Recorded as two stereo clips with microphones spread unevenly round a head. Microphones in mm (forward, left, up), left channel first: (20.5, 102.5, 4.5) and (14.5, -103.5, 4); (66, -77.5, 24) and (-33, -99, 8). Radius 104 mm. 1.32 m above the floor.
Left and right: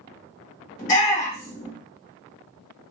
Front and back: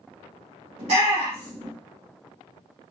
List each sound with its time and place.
0.8 s a shout: 145° left, 2 m